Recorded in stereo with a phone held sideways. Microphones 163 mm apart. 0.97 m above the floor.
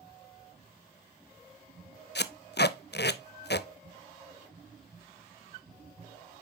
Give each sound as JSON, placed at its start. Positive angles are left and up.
{"t": 2.1, "sound": "tape being pulled", "side_deg": 90, "distance_m": 0.5}